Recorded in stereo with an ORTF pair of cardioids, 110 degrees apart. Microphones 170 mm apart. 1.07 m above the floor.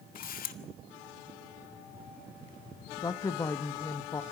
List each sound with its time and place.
0.1 s a camera shutter: 55° left, 1.9 m
3.0 s a woman speaking: 20° left, 0.9 m